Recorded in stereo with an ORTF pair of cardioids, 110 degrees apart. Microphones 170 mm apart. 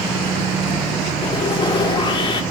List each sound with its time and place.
1.2 s sawing: 30° left, 1.5 m